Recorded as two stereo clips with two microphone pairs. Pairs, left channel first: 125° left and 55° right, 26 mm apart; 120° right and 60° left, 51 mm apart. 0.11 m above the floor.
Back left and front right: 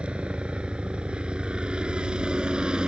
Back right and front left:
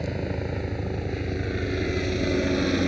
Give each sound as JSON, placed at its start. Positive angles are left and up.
{"t": 0.0, "sound": "a helicopter", "azimuth_deg": -35}